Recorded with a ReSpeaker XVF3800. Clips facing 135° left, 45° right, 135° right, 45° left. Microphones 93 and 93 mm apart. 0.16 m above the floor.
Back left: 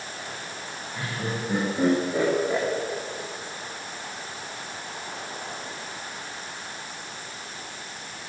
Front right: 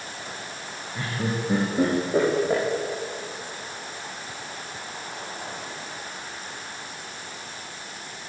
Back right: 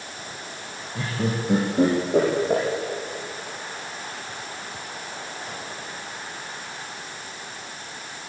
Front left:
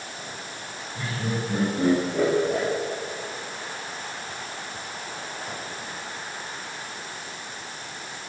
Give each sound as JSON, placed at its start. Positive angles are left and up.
{"t": 0.9, "sound": "laughter", "azimuth_deg": -125, "distance_m": 7.0}